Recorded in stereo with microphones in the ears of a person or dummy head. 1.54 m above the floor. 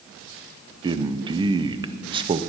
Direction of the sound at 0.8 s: 25° right (ahead or behind).